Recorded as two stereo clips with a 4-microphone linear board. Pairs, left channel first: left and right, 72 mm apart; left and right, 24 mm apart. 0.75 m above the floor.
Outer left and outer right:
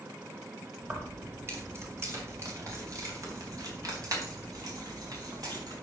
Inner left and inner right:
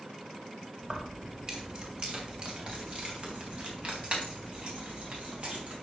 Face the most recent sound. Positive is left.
turn(degrees=-60)  # may be behind; listen again after turning